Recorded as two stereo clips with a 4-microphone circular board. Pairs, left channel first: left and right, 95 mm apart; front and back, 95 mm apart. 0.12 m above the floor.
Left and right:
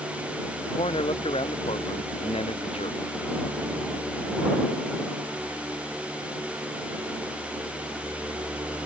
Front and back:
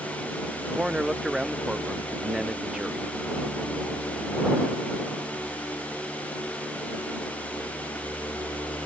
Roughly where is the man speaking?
Left.